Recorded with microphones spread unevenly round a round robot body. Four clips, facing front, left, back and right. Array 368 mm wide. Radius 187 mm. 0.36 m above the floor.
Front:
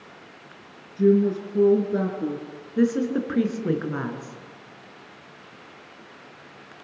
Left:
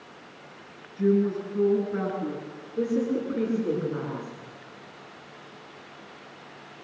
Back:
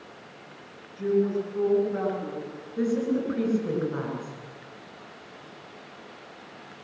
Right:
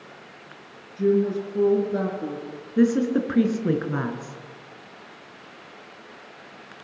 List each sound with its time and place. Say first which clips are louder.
1.0 s a woman speaking: right 2 dB, front 5 dB; 5° left, 6 m
2.8 s a woman speaking: right 6 dB, front 4 dB; 60° right, 6 m